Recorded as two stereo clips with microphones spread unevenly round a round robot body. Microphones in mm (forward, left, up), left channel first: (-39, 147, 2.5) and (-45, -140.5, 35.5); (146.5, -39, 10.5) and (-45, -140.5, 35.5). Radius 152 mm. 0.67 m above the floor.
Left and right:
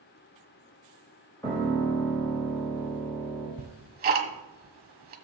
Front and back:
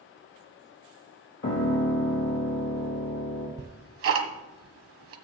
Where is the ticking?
150° right, 1.3 m.